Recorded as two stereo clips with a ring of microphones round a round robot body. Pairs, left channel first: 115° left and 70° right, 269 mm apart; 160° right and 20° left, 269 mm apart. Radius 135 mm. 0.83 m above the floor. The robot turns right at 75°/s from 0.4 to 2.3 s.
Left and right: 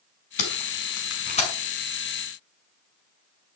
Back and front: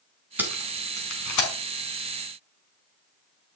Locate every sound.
0.4 s tape being pulled: 105° left, 5.5 m; by 1.5 s 175° right, 5.5 m